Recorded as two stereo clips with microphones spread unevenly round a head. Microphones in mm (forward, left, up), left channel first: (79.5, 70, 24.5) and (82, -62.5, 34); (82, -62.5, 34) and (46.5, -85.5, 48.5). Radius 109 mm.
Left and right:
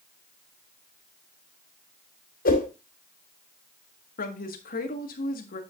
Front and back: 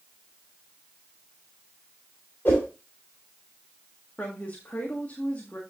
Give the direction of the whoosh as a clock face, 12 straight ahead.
9 o'clock.